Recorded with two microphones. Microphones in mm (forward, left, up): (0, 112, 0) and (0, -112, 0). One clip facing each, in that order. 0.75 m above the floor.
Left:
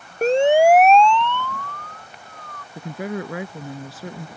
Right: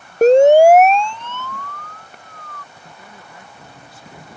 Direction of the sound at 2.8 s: 85° left.